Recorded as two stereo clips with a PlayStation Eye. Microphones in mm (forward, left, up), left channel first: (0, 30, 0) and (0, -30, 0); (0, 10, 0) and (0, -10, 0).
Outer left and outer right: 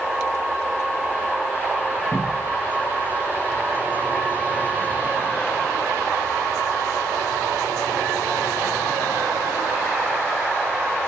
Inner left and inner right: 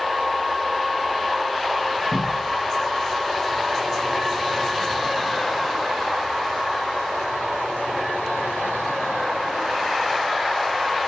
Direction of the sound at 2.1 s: 25° left (ahead or behind).